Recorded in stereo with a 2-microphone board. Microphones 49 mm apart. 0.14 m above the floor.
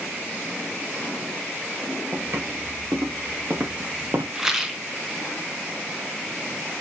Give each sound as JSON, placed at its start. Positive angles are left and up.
{"t": 2.1, "sound": "footsteps", "side_deg": -85, "distance_m": 3.5}
{"t": 4.3, "sound": "a rattle", "side_deg": -5, "distance_m": 0.7}